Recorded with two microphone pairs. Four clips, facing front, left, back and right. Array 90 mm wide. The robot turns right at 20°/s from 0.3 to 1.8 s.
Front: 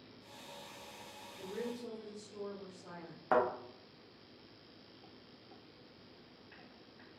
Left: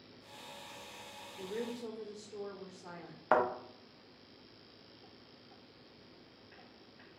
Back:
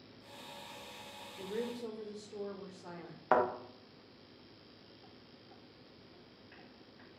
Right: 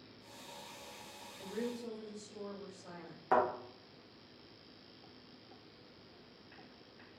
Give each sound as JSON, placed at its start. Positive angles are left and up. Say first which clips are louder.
{"t": 1.4, "sound": "a woman speaking", "louder": "left 1 dB, back 3 dB", "azimuth_deg": 145, "distance_m": 1.5}
{"t": 3.3, "sound": "a thud", "louder": "left 1 dB, back 1 dB", "azimuth_deg": 130, "distance_m": 0.9}